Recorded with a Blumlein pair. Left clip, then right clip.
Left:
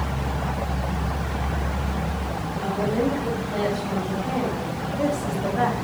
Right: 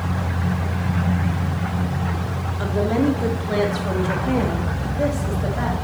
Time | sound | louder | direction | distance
2.6 | a woman speaking | right 3 dB | 45° right | 3.5 m